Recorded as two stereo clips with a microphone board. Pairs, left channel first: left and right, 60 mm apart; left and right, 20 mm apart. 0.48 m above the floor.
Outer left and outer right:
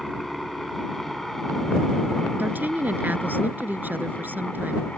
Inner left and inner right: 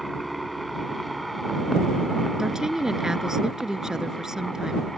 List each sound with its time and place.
0.0 s a helicopter: 5° left (ahead or behind); by 5.0 s 20° left (ahead or behind)
2.4 s a woman speaking: 35° right (ahead or behind)